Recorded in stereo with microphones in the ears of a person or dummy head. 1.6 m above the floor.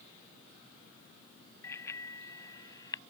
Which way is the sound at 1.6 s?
15° left (ahead or behind).